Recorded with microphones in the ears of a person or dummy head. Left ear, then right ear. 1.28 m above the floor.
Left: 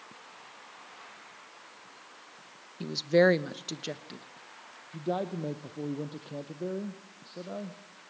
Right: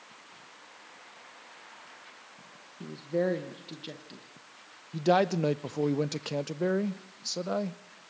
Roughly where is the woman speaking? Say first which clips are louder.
Left 7 dB; left.